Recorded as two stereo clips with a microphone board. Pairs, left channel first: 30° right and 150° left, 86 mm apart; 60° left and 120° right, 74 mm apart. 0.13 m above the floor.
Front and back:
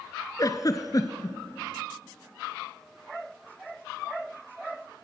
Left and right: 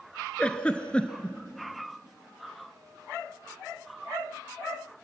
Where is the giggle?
10° right, 1.3 m.